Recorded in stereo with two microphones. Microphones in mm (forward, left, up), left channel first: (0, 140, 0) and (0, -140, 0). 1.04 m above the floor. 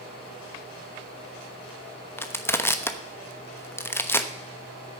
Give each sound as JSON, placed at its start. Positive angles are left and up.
{"t": 2.2, "sound": "crushing", "side_deg": 10, "distance_m": 1.0}